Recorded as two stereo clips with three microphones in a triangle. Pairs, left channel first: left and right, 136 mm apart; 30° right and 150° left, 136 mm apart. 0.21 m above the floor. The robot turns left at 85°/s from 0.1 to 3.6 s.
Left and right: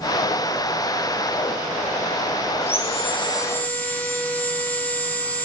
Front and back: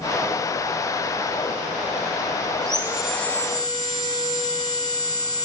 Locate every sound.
2.6 s sawing: 100° left, 2.5 m; by 5.5 s 15° left, 2.5 m